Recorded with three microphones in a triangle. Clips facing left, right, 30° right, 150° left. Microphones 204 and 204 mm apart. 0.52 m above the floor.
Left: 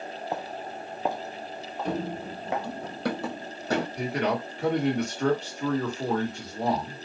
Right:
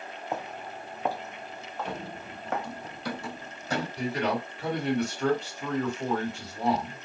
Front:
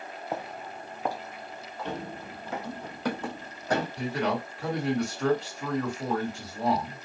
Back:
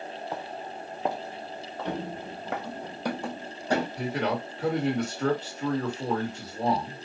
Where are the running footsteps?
90° left, 0.6 m; by 3.9 s 70° left, 1.6 m.